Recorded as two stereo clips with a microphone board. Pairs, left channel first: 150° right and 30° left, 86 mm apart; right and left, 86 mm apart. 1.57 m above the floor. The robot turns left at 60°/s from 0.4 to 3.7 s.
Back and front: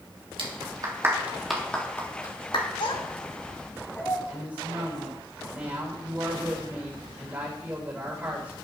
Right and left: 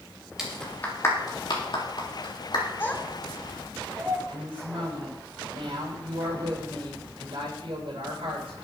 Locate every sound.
0.4 s a clap: 5° left, 3.5 m; by 2.6 s 130° right, 3.5 m
2.8 s a child speaking: 155° right, 2.5 m; by 4.2 s 150° left, 2.5 m
4.3 s a woman speaking: 100° left, 7.5 m